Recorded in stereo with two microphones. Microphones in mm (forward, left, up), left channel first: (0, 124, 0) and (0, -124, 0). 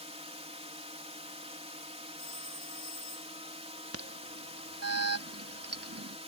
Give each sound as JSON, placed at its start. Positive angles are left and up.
{"t": 0.0, "sound": "a drone", "side_deg": -25}
{"t": 2.2, "sound": "a phone ringing", "side_deg": -30}
{"t": 3.9, "sound": "an alarm", "side_deg": -75}